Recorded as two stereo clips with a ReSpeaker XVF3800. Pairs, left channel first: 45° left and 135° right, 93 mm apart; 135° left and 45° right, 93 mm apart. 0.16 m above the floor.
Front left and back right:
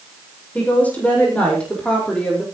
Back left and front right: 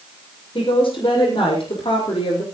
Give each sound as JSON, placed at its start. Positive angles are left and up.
{"t": 0.6, "sound": "a woman speaking", "azimuth_deg": 120, "distance_m": 7.0}